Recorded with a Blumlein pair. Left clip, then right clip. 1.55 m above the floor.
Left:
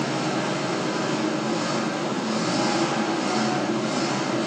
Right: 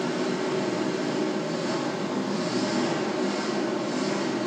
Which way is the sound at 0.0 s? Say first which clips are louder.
Left 2 dB; 40° left.